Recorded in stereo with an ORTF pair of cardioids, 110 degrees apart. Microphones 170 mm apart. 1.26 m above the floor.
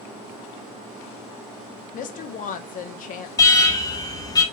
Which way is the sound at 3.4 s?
20° left.